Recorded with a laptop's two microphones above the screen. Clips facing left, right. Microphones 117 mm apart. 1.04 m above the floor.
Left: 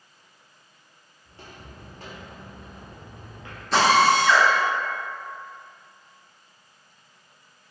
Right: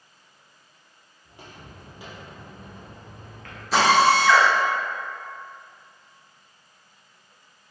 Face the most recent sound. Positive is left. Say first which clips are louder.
# even
turn(degrees=-5)  # may be behind; listen again after turning